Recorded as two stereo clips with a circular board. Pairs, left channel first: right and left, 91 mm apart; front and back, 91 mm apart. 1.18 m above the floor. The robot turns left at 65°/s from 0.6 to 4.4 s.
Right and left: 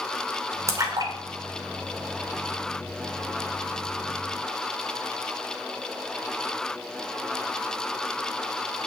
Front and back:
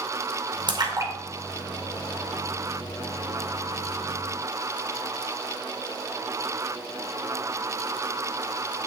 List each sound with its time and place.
0.7 s a splash: 145° left, 2 m; by 2.5 s 25° left, 2 m